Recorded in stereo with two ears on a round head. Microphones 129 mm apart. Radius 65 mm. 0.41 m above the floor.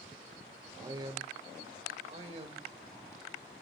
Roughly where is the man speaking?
Right.